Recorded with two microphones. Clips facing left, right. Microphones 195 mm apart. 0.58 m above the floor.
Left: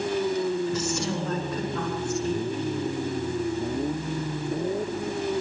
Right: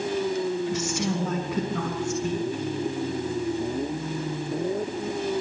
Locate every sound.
0.7 s a woman speaking: 75° right (ahead or behind), 5.5 m